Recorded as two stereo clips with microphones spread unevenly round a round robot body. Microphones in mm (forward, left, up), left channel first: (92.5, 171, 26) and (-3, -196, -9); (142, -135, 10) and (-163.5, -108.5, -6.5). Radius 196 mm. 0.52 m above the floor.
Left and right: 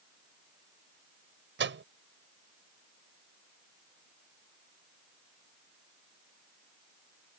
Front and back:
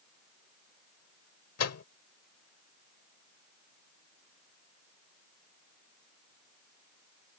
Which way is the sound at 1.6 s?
45° right.